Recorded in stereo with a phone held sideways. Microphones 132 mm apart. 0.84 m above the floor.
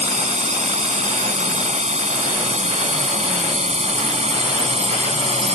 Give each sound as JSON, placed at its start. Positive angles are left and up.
{"t": 0.0, "sound": "a drone", "side_deg": -65}